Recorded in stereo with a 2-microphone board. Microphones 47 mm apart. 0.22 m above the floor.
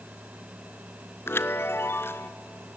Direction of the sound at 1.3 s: 50° left (ahead or behind).